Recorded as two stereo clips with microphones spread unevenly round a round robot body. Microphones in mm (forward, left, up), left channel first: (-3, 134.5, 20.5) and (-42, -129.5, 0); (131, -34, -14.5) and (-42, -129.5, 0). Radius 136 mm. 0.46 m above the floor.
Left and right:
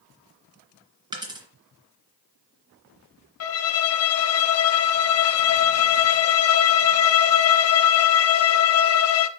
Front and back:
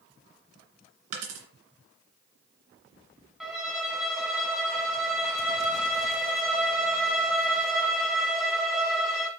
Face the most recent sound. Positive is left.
turn(degrees=120)